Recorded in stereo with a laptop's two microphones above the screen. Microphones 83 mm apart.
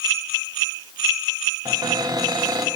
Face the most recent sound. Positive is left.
turn(degrees=-55)  # may be behind; listen again after turning